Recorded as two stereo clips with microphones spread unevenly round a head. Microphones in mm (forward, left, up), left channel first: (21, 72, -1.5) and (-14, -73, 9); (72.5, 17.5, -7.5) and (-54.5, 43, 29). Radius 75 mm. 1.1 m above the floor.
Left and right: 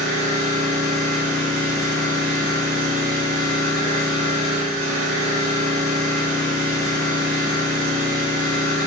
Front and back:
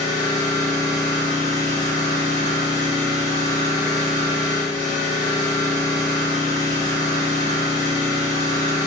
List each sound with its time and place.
0.0 s an engine running: 85° right, 1.4 m